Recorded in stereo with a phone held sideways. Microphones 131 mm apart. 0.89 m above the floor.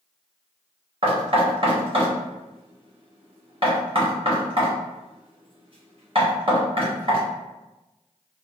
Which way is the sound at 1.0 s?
45° right (ahead or behind).